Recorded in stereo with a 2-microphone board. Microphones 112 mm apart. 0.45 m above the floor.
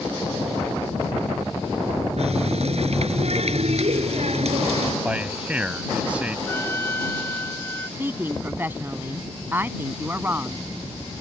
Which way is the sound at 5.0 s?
10° right (ahead or behind).